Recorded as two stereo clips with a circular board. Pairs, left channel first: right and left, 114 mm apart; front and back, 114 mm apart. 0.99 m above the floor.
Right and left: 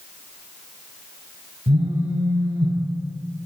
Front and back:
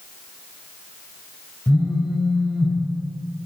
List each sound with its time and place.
1.7 s a phone buzzing: 75° left, 4 m